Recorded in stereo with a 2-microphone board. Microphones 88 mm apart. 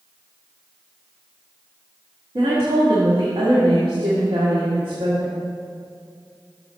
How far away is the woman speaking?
About 1.5 m.